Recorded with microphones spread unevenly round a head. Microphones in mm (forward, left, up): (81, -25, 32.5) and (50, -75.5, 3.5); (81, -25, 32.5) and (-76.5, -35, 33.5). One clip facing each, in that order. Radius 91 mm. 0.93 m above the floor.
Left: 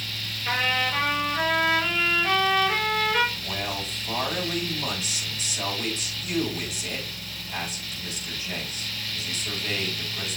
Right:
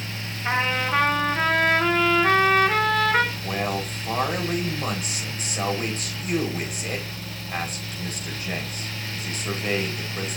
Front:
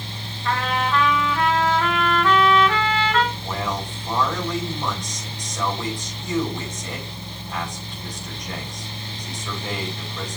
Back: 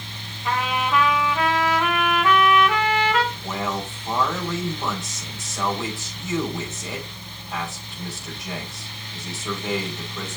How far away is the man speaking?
About 5 m.